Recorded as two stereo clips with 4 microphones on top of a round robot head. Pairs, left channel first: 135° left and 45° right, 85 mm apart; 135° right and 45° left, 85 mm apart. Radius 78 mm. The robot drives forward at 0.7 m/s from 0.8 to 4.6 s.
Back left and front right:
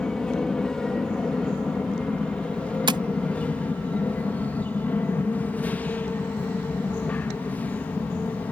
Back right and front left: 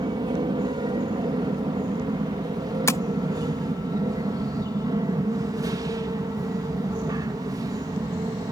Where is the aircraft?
55° left; by 8.5 s 65° left.